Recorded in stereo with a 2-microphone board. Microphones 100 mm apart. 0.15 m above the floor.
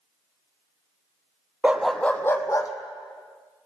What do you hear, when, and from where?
1.6 s a dog barking: 15° right (ahead or behind), 0.9 m; by 2.7 s 35° left (ahead or behind), 1.5 m